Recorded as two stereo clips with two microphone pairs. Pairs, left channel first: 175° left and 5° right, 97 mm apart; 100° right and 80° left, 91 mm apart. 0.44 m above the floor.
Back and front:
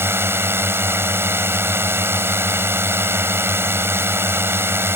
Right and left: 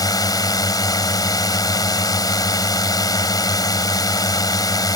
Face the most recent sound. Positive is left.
turn(degrees=-65)